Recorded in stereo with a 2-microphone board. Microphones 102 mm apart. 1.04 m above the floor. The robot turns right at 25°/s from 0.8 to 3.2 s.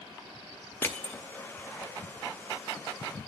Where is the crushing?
20° left (ahead or behind), 0.7 m; by 1.2 s 15° left (ahead or behind), 0.7 m.